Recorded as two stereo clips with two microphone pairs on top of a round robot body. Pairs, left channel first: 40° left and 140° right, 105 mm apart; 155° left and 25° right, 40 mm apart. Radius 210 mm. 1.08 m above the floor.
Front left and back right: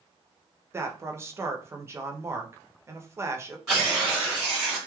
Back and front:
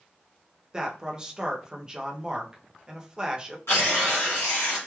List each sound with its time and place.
0.7 s a man speaking: 95° right, 0.8 m
3.7 s tearing paper: 130° left, 1.4 m